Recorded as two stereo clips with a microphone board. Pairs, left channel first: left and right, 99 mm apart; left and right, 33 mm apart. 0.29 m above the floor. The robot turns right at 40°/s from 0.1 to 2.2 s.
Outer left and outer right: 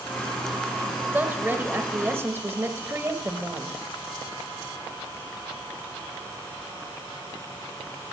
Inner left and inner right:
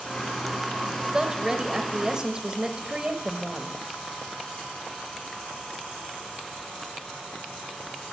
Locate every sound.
1.1 s a woman speaking: 20° right (ahead or behind), 0.9 m; by 3.8 s 25° right (ahead or behind), 0.9 m